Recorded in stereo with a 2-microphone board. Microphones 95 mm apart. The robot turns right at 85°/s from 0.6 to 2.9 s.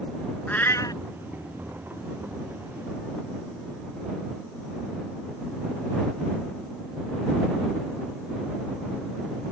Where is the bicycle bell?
No bicycle bell in this recording.